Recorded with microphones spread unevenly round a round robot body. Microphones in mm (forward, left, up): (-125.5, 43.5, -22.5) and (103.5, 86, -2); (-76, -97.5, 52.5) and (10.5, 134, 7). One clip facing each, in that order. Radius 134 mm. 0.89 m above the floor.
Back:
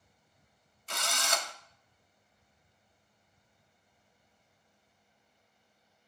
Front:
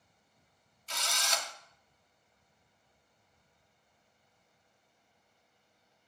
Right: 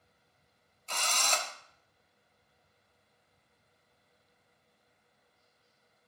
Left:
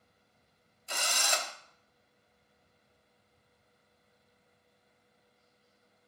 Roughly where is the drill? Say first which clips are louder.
Back 4 dB, even; behind left.